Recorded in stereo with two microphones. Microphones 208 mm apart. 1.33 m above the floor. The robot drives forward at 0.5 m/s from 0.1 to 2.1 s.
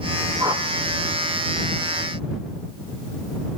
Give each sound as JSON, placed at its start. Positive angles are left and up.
{"t": 0.4, "sound": "a whoosh", "side_deg": -20, "distance_m": 2.0}